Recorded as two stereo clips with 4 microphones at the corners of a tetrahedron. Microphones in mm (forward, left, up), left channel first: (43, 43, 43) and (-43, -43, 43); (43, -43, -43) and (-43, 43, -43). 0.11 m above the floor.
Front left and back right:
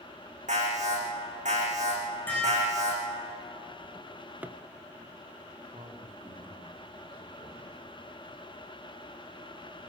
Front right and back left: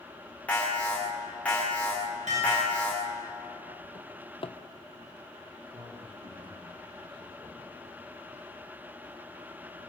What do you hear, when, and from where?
0.5 s an alarm: 125° right, 9.5 m
2.3 s dishes clattering: 120° left, 9 m
4.0 s a drawer: 65° right, 1.1 m
5.7 s a man speaking: straight behind, 7 m